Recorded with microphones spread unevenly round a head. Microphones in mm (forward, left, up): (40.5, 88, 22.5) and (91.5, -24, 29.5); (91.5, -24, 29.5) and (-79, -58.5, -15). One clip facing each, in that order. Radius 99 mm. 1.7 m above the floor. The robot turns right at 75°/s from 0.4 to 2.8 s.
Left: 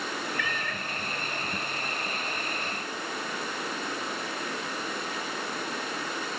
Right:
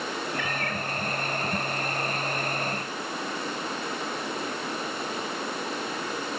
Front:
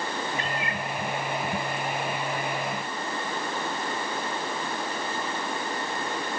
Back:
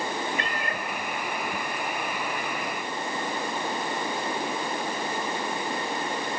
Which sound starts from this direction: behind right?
A cat meowing, at 0.4 s.